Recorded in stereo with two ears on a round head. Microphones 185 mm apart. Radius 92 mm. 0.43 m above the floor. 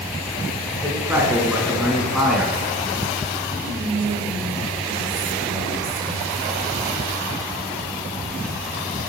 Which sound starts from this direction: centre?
A man speaking, at 0.8 s.